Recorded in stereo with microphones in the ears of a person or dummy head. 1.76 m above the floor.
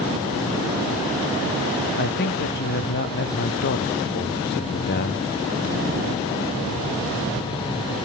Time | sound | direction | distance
2.0 | a man speaking | 50° left (ahead or behind) | 0.9 m